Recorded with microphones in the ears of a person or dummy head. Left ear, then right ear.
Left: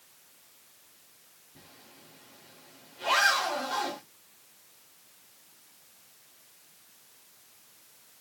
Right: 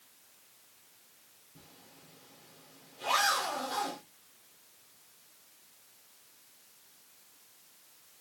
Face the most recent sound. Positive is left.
turn(degrees=15)  # may be behind; listen again after turning